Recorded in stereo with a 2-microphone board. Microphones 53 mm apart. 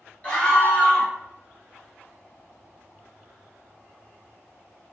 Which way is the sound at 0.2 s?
25° left (ahead or behind).